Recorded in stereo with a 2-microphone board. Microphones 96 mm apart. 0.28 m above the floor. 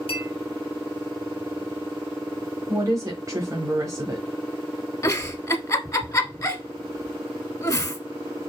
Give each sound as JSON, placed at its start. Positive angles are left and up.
{"t": 0.1, "sound": "a clink", "side_deg": 75, "distance_m": 2.5}
{"t": 2.7, "sound": "a woman speaking", "side_deg": -35, "distance_m": 1.1}
{"t": 5.0, "sound": "a giggle", "side_deg": 35, "distance_m": 0.8}